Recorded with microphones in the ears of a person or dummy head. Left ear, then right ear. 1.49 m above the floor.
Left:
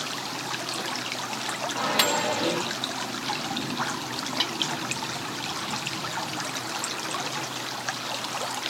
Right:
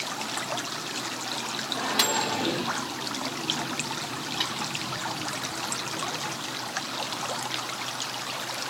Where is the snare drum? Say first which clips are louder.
Left 2 dB; 55° left (ahead or behind), 1.5 m.